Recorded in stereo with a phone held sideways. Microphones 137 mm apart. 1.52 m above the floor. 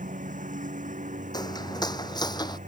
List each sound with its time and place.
0.0 s a lawn mower: 70° right (ahead or behind); by 2.7 s 65° right (ahead or behind)
1.3 s footsteps: 30° left (ahead or behind)